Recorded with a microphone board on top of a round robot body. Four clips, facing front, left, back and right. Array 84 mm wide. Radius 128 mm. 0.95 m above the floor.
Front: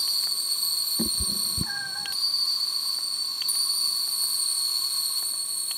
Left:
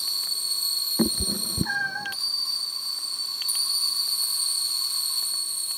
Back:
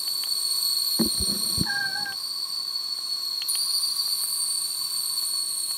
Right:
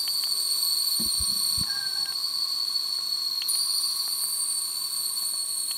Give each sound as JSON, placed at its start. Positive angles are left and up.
{"t": 1.0, "sound": "a cat meowing", "azimuth_deg": 115}